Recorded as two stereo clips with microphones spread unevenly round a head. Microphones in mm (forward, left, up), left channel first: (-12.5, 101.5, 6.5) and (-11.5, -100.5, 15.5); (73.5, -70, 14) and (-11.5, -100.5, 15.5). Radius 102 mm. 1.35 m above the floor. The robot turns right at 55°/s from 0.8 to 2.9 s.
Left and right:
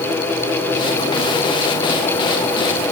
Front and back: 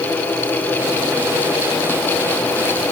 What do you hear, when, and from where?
Only background noise.